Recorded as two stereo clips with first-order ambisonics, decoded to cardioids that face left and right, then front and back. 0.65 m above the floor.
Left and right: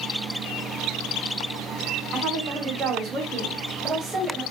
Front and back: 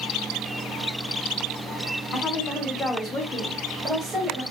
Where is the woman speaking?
40° right, 1.3 m; by 4.4 s 175° right, 1.0 m.